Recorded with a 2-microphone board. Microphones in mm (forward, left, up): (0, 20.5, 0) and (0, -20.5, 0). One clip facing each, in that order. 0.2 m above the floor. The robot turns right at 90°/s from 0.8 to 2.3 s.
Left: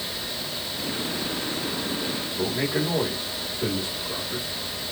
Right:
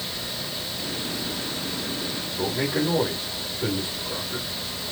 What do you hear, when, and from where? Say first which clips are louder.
2.4 s a man speaking: right 1 dB; 25° left (ahead or behind), 8.5 m